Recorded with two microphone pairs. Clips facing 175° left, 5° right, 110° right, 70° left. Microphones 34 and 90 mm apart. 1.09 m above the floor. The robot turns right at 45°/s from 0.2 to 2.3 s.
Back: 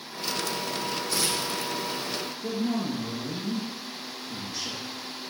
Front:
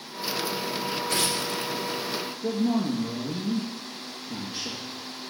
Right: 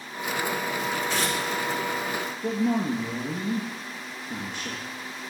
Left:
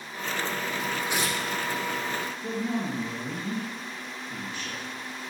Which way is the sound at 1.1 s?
Straight ahead.